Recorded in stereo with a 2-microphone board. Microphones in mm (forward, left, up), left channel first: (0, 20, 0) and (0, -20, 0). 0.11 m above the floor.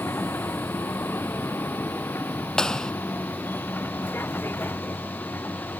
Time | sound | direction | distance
0.0 | a vehicle | 75° left (ahead or behind) | ?
2.6 | a clap | 15° left (ahead or behind) | ?